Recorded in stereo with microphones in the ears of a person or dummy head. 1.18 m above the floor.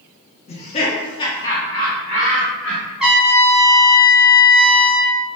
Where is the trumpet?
5° right (ahead or behind), 0.6 m.